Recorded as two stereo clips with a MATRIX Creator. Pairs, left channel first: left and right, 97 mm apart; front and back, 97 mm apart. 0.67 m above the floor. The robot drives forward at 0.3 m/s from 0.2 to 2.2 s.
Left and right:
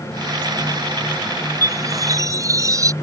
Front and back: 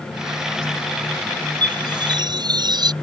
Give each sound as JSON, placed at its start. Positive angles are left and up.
{"t": 1.6, "sound": "a chime", "azimuth_deg": -140}